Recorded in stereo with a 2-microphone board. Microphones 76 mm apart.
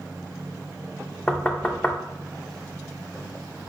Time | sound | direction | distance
1.3 | knocking | 15° left (ahead or behind) | 0.5 m